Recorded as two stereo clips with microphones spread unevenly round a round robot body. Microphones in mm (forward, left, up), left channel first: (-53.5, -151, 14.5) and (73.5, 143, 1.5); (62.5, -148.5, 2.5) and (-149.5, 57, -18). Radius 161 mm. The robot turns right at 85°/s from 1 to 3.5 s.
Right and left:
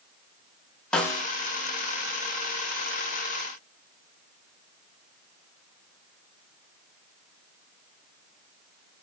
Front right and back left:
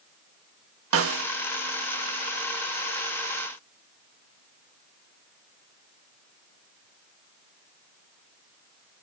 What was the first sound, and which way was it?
A snare drum, 160° left.